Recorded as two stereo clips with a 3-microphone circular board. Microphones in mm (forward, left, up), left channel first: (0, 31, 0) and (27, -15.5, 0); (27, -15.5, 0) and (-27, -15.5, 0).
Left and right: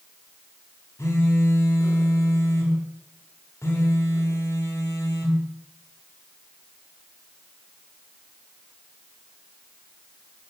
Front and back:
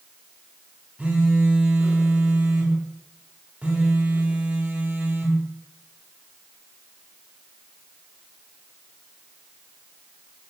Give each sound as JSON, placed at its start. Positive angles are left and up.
{"t": 1.0, "sound": "a phone buzzing", "azimuth_deg": 120, "distance_m": 1.8}